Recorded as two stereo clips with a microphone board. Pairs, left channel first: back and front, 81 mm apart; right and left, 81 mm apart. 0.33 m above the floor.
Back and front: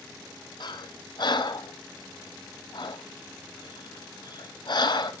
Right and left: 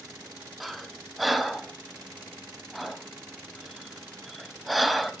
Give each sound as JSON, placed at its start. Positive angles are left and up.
{"t": 0.6, "sound": "breathing", "azimuth_deg": 180, "distance_m": 1.2}